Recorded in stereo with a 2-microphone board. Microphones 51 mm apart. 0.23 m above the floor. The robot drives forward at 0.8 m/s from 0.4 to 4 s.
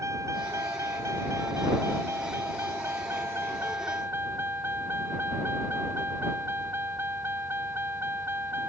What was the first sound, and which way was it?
A vehicle, 80° right.